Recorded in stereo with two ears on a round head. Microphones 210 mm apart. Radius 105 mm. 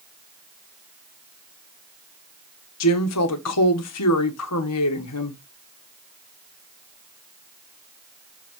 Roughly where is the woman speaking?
Left.